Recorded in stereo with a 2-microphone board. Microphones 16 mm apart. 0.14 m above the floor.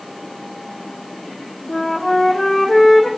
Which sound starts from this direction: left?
A flute, at 1.7 s.